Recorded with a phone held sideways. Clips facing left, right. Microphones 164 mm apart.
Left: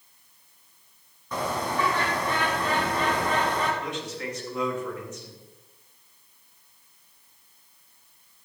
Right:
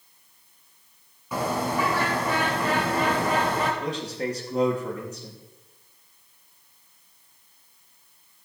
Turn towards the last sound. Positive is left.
turn(degrees=-35)  # may be behind; listen again after turning